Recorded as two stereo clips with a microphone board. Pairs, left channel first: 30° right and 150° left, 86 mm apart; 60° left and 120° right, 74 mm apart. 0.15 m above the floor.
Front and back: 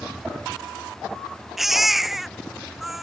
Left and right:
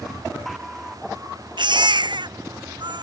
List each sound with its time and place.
1.6 s a baby crying: 125° right